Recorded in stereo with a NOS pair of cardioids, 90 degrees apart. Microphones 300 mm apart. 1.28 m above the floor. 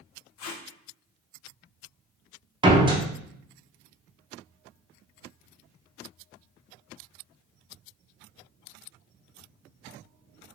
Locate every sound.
0.4 s tape being pulled: 60° left, 0.6 m
2.6 s a door slam: 15° right, 0.7 m